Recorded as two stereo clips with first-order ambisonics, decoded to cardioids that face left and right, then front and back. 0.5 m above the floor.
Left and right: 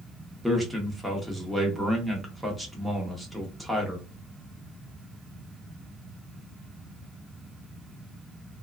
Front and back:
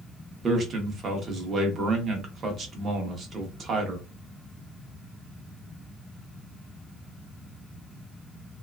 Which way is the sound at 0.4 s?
Straight behind.